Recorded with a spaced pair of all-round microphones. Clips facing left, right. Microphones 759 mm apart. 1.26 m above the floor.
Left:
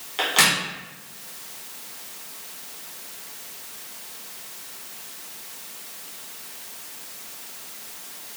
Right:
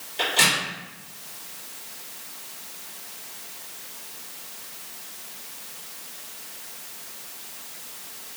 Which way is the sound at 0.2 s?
85° left.